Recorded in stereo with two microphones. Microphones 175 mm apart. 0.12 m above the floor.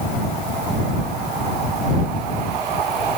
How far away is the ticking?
I don't hear ticking.